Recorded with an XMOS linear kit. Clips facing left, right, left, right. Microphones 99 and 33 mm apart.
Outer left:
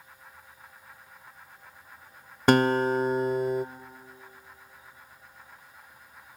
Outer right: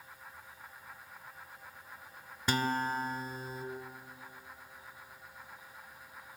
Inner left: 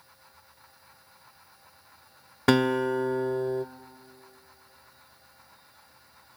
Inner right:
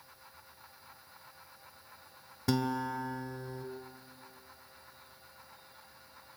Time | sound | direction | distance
2.5 | a guitar | 65° left (ahead or behind) | 1.0 m